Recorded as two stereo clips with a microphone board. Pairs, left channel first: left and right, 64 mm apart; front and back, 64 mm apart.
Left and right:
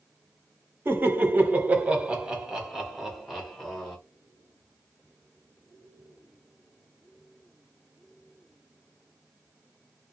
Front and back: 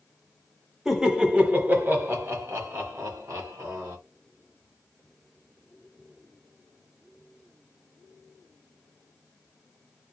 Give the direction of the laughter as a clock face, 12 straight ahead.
3 o'clock.